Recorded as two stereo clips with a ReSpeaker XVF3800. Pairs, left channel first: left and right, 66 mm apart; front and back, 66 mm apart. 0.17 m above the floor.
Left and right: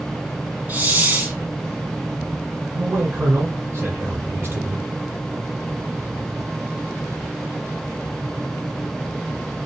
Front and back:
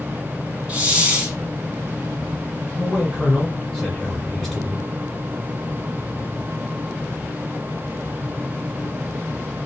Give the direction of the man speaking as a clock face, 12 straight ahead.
3 o'clock.